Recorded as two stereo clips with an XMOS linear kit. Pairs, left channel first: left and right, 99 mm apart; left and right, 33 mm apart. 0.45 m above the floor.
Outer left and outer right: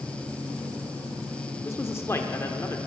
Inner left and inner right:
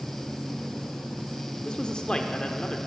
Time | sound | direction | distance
1.6 | a man speaking | 25° left (ahead or behind) | 0.8 m